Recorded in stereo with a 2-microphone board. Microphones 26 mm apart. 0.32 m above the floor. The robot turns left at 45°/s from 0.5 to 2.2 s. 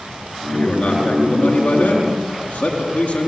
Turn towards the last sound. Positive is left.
turn(degrees=75)